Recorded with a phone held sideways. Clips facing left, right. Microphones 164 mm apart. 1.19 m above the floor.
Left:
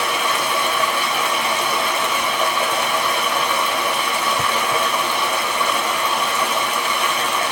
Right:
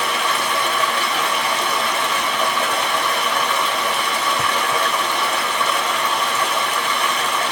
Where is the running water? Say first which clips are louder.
Left 1 dB; 10° left (ahead or behind), 1.1 m.